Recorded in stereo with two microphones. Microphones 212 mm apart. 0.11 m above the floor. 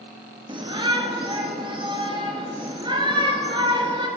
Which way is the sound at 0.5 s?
25° right (ahead or behind).